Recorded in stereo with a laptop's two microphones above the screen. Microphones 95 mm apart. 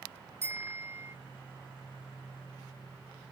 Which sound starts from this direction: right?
A bicycle bell, at 0.4 s.